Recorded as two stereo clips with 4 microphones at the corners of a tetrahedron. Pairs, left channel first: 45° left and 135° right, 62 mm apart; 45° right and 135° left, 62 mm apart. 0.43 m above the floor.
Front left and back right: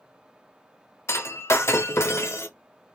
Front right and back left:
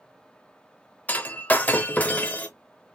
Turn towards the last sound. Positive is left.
turn(degrees=10)